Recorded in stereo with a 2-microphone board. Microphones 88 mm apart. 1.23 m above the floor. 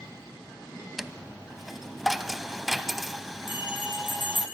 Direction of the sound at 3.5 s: 80° left.